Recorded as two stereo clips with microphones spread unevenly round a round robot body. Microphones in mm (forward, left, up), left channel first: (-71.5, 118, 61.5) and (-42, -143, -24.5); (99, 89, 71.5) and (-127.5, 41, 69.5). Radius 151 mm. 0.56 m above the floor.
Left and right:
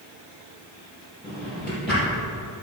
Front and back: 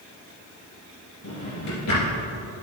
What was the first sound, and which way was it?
A drawer, 10° left.